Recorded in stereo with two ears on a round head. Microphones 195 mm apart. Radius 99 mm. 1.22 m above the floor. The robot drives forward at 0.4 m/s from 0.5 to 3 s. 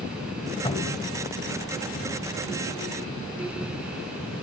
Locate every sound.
0.7 s a cupboard door: 25° left (ahead or behind), 3 m; by 1.1 s 20° left (ahead or behind), 3 m